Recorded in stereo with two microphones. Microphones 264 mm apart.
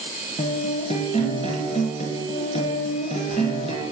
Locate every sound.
0.4 s a guitar: 25° left (ahead or behind), 1.1 m